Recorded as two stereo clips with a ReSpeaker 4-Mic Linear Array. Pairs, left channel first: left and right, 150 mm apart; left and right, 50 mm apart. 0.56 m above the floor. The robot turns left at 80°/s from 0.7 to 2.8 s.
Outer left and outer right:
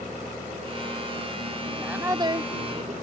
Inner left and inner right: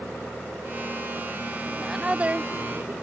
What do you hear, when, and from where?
1.7 s a woman speaking: 5° left; by 3.0 s 85° right